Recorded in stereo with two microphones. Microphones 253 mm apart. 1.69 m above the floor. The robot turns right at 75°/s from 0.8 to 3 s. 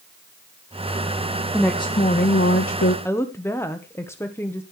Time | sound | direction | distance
1.5 | a woman speaking | straight ahead | 1.1 m
3.0 | a woman speaking | 10° left (ahead or behind) | 1.0 m